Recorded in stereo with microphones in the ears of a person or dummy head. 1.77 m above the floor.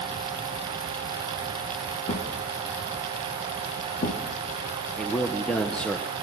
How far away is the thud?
About 1.7 m.